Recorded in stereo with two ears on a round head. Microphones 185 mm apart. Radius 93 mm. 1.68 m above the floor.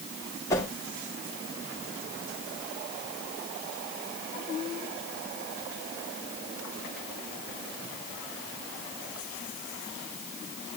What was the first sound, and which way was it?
A whoosh, 15° left (ahead or behind).